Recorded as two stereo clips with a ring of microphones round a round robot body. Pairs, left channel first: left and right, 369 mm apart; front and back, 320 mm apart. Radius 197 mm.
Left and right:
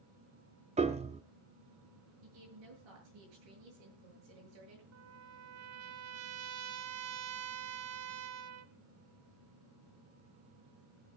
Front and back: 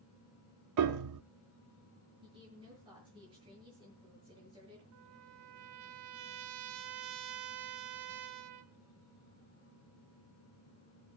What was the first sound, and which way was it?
A piano, 165° right.